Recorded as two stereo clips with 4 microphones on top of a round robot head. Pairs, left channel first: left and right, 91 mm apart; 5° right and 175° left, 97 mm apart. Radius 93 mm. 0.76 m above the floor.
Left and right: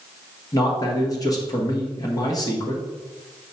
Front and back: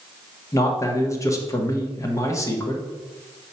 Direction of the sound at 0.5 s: 50° left.